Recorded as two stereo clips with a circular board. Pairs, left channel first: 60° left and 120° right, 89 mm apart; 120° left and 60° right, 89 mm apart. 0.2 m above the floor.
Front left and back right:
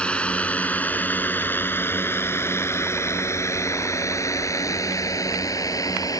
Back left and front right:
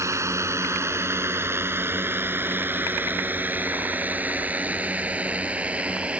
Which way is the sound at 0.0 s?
15° right.